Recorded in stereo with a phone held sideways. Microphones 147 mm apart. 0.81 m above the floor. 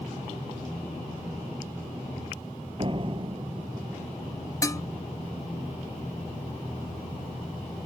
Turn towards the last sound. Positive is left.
turn(degrees=20)  # may be behind; listen again after turning